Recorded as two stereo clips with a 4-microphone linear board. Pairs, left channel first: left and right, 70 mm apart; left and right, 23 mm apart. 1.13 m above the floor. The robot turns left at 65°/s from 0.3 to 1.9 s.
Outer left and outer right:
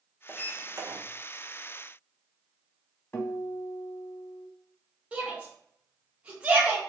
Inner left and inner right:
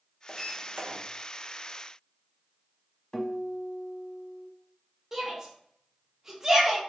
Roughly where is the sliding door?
Ahead.